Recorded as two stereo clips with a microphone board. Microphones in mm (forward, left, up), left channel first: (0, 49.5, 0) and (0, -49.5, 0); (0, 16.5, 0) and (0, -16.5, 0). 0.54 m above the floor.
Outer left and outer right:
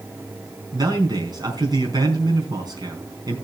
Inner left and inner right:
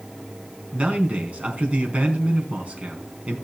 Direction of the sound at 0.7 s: 45° right (ahead or behind).